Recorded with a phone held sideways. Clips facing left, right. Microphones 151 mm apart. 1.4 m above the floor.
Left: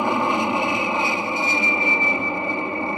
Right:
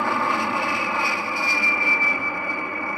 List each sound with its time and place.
0.0 s an aircraft: 20° left (ahead or behind); by 3.0 s 25° left (ahead or behind)